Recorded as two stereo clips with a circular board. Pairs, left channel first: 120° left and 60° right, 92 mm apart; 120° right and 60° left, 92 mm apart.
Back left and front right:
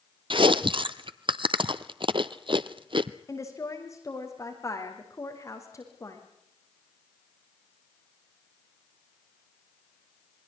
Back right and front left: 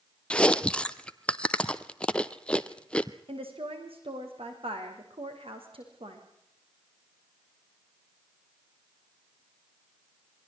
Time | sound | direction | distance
0.3 | chewing | 40° right | 0.9 m
3.3 | a woman speaking | 65° left | 6 m